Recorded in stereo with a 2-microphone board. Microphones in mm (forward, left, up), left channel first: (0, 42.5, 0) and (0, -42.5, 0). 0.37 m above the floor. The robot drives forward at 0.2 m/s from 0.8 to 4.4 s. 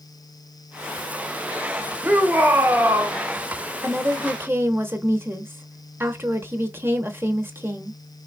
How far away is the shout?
About 1.1 m.